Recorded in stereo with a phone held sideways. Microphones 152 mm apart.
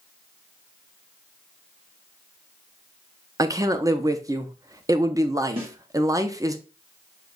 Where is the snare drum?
35° right (ahead or behind), 2.5 m.